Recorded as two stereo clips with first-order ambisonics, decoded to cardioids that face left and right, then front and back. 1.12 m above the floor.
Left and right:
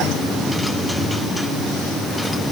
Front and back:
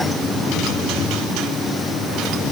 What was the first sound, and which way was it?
Only background noise.